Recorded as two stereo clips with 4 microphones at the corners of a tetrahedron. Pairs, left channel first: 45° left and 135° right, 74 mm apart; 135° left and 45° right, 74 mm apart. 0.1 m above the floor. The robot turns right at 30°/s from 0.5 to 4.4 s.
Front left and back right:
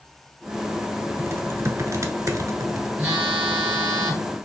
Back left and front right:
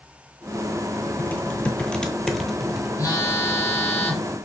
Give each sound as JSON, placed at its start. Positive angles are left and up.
{"t": 1.2, "sound": "typing on a keyboard", "azimuth_deg": -175, "distance_m": 0.8}
{"t": 3.0, "sound": "a phone buzzing", "azimuth_deg": 160, "distance_m": 2.5}